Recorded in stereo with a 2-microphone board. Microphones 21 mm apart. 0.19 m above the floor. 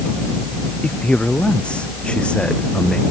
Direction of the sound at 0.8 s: 55° left (ahead or behind).